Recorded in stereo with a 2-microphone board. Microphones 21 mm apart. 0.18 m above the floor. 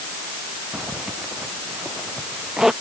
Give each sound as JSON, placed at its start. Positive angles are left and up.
{"t": 0.7, "sound": "a zipper", "side_deg": -20}